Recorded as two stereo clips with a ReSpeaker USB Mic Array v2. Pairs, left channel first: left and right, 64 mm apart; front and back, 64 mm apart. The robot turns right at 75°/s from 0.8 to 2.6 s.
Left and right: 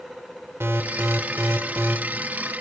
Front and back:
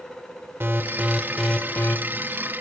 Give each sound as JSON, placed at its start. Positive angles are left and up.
{"t": 0.6, "sound": "an alarm", "azimuth_deg": -130, "distance_m": 0.9}